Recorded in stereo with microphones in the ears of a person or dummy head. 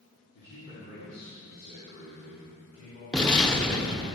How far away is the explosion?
About 0.8 m.